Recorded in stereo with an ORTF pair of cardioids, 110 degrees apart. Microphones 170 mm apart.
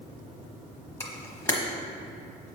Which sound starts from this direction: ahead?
A camera shutter, at 1.0 s.